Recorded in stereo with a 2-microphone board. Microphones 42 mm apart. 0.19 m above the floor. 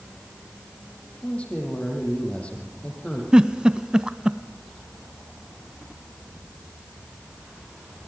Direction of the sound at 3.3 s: 20° right (ahead or behind).